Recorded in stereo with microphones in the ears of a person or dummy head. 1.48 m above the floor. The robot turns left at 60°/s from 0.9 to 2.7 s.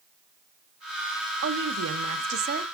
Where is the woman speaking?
60° right, 0.8 m; by 2.6 s 135° right, 0.8 m.